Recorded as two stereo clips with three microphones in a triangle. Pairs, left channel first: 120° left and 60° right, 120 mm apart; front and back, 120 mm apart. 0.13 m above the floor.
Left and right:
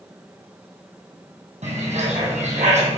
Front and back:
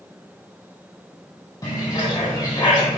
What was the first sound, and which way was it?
A bird, 55° right.